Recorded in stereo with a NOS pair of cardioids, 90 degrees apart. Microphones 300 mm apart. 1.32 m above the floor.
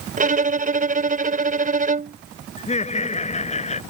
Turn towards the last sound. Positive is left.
turn(degrees=20)